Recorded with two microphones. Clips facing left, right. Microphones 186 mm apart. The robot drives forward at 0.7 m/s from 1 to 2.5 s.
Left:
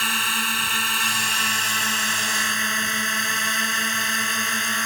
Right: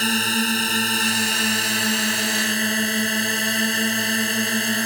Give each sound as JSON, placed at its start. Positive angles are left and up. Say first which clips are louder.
{"t": 0.0, "sound": "a drone", "louder": "right 9 dB", "side_deg": -40}